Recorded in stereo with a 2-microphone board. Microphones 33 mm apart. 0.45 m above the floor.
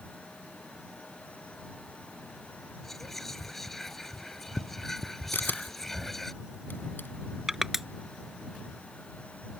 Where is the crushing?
10° right (ahead or behind).